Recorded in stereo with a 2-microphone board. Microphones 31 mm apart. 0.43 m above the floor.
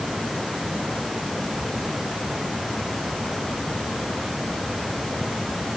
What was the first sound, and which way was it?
Only background noise.